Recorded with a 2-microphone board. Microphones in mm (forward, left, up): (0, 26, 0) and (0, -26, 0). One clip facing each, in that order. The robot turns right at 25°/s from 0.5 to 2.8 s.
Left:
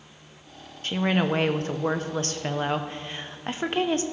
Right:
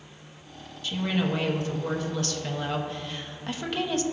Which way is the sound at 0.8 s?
85° left.